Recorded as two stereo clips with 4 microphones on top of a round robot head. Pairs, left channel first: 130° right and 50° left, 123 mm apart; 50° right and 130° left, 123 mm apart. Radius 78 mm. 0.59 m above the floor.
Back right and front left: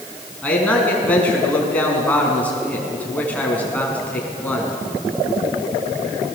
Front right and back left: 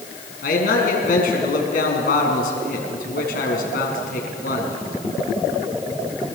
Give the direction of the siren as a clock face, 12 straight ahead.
I don't hear a siren.